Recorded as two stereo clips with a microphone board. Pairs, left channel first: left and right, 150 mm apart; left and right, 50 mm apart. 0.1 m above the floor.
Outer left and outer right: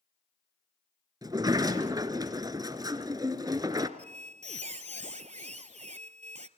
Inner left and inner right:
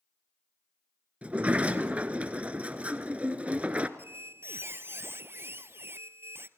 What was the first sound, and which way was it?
A sliding door, 25° right (ahead or behind).